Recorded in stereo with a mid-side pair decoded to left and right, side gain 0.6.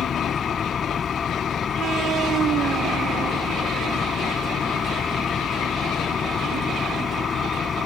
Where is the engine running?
30° left.